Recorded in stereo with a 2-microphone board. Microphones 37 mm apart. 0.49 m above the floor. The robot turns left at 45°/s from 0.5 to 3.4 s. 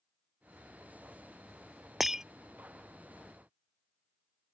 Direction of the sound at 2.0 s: 5° right (ahead or behind).